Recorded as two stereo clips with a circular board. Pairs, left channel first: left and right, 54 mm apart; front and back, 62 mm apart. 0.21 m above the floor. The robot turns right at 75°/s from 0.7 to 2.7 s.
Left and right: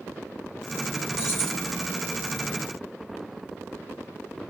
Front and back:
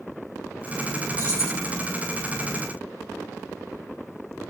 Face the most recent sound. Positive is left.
turn(degrees=100)